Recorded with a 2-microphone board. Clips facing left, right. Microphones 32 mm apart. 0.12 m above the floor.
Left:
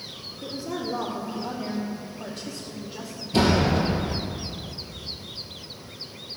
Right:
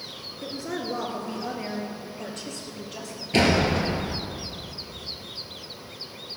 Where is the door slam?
55° right (ahead or behind), 1.6 m.